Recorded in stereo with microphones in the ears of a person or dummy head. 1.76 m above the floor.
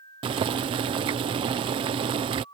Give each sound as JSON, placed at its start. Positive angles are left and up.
{"t": 0.2, "sound": "boiling", "side_deg": -30}